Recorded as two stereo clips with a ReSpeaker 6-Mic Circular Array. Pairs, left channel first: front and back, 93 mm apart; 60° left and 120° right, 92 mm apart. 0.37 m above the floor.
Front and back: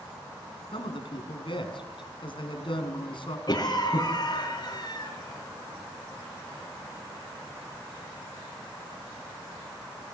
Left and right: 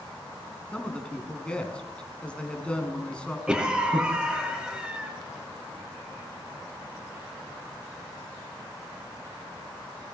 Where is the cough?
40° right, 5 m.